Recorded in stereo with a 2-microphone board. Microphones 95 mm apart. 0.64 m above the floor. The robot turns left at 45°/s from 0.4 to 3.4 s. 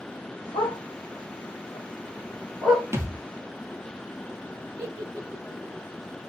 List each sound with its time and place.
0.5 s a dog barking: 85° left, 7 m; by 2.8 s 20° right (ahead or behind), 7 m
2.9 s a thud: 30° right (ahead or behind), 2 m; by 3.1 s 40° right (ahead or behind), 2 m
4.8 s a giggle: 30° right (ahead or behind), 6.5 m